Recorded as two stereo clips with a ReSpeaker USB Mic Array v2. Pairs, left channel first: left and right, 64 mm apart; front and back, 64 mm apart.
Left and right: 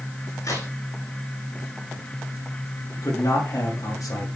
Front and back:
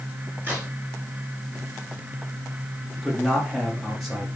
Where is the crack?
115° left, 7.5 m.